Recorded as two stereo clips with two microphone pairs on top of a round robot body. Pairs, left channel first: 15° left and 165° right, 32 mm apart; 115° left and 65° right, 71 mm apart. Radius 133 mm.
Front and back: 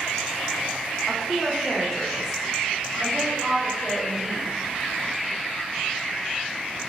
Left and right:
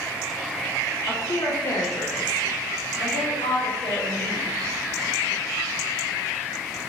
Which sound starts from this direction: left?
A woman speaking, at 1.1 s.